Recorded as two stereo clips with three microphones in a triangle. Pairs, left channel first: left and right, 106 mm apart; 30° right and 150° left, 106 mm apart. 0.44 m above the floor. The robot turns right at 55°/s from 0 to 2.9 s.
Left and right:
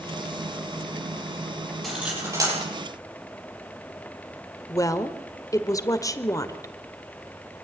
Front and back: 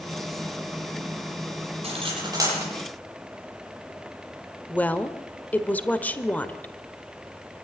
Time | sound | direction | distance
1.8 | cutlery clinking | straight behind | 8.5 m
4.7 | a woman speaking | 40° left | 1.7 m